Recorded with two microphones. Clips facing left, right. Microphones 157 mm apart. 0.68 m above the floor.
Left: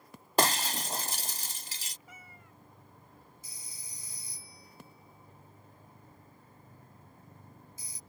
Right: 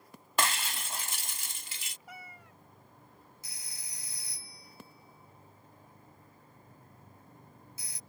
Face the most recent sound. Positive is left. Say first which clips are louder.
# even
turn(degrees=-80)